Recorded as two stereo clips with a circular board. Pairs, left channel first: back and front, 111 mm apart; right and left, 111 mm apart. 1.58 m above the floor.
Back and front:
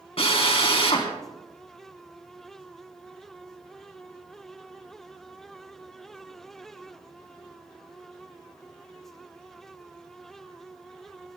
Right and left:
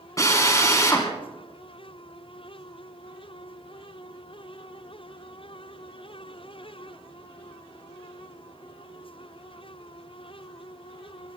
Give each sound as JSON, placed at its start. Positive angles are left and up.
{"t": 0.2, "sound": "a drill", "azimuth_deg": -150, "distance_m": 4.0}